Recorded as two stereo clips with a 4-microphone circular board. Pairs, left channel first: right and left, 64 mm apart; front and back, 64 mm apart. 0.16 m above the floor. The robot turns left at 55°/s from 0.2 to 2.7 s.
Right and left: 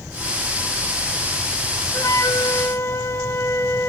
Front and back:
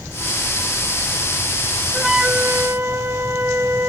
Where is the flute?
90° right, 0.6 m; by 3.9 s 130° right, 0.6 m.